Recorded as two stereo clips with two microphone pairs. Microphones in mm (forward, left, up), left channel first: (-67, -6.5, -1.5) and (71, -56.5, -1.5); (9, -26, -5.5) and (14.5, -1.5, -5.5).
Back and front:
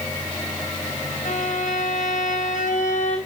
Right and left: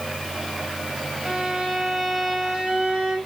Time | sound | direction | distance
1.2 | a violin | 135° left | 5 m